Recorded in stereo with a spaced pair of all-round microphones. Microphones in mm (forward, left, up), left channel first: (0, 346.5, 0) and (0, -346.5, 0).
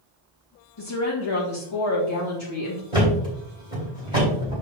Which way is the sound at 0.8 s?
45° left (ahead or behind).